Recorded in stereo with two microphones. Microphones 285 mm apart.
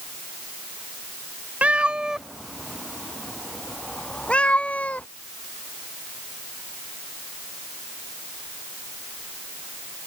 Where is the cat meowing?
5° right (ahead or behind); by 5.0 s 5° left (ahead or behind).